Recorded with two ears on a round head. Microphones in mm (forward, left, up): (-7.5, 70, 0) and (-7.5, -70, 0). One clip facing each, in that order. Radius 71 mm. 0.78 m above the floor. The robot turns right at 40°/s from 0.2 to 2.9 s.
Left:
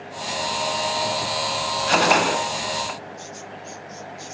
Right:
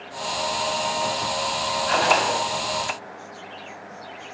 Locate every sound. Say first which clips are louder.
1.9 s a gunshot: left 2 dB; 45° left (ahead or behind), 1.8 m; by 2.4 s 60° left (ahead or behind), 1.8 m